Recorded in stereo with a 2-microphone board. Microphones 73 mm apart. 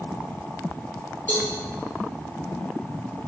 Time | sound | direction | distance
1.3 | a cowbell | 25° left (ahead or behind) | 1.3 m